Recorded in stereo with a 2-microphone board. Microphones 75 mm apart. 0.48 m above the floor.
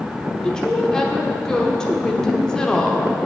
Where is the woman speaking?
10° left (ahead or behind), 1.1 m.